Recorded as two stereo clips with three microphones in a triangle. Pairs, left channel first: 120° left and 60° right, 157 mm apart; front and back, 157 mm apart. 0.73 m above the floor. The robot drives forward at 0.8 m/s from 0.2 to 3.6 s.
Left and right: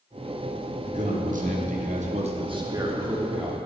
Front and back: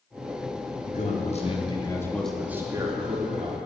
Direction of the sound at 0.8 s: 30° right.